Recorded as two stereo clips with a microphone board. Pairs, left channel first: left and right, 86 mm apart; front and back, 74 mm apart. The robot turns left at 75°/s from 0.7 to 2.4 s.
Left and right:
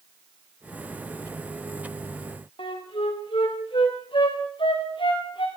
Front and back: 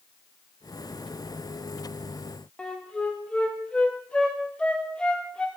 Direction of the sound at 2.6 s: 75° left.